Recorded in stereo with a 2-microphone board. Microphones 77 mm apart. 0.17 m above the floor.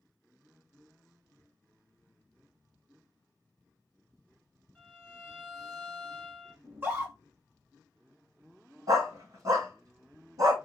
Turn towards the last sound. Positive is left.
turn(degrees=-55)  # may be behind; listen again after turning